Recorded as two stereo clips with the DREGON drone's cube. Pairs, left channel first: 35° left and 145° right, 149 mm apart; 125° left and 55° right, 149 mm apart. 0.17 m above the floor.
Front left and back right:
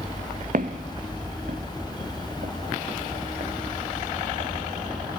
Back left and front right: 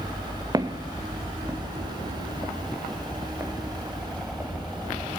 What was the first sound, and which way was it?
Footsteps, 120° right.